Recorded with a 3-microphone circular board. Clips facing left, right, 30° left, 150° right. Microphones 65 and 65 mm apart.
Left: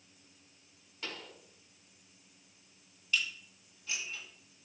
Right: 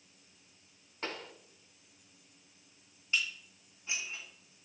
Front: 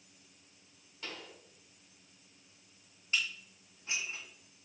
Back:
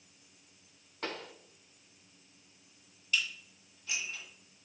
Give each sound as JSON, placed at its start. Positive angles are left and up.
{"t": 1.0, "sound": "a pop", "azimuth_deg": -135, "distance_m": 0.9}
{"t": 3.1, "sound": "dishes clattering", "azimuth_deg": -25, "distance_m": 3.0}